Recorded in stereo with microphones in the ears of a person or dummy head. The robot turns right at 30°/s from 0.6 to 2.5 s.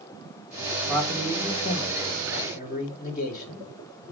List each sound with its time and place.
0.9 s a man speaking: 5° left, 2 m; by 3.6 s 50° left, 2 m